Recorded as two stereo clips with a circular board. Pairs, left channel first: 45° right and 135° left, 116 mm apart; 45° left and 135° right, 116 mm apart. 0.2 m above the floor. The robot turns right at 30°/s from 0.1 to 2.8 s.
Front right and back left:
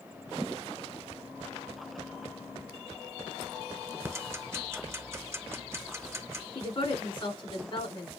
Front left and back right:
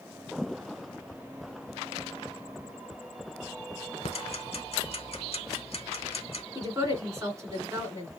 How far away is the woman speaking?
About 2.5 m.